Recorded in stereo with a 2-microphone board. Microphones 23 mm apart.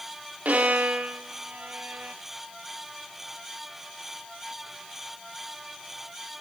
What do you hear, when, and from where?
0.5 s a violin: 80° right, 0.7 m